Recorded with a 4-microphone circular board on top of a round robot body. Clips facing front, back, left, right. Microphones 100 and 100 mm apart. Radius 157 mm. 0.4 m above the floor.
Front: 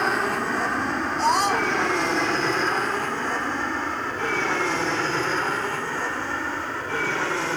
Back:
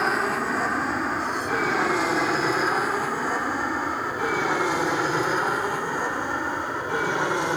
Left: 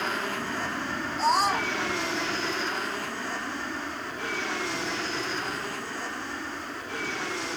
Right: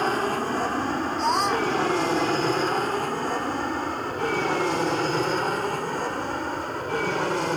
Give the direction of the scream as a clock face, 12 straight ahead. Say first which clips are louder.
Front 5 dB, even; 12 o'clock.